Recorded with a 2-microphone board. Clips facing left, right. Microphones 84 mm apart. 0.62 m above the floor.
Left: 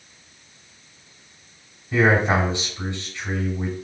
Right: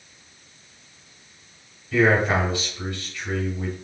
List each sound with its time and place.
1.9 s a man speaking: 25° left (ahead or behind), 3 m